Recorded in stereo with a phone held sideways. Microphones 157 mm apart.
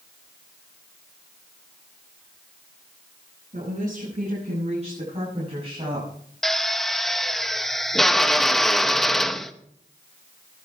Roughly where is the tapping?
No tapping in this recording.